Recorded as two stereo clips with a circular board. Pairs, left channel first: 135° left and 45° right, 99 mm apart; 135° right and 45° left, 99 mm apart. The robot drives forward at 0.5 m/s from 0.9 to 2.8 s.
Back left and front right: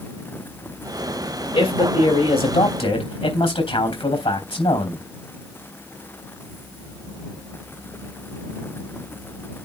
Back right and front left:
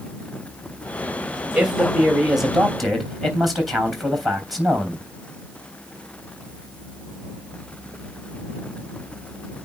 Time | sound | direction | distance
1.5 | a man speaking | 125° left | 3 m